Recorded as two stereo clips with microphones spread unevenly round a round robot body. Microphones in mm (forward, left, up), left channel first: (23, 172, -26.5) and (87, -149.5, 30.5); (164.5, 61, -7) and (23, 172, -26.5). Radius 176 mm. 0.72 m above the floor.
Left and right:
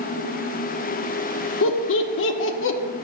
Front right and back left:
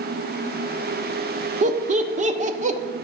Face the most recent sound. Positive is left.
turn(degrees=125)